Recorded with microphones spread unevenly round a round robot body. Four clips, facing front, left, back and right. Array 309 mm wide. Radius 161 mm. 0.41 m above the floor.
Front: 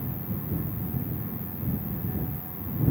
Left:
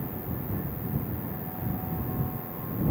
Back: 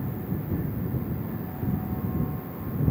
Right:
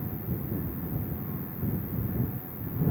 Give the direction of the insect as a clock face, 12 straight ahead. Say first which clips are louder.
Even, back 3 dB; 11 o'clock.